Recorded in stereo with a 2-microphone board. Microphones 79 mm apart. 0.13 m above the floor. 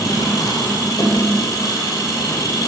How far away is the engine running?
About 2.0 m.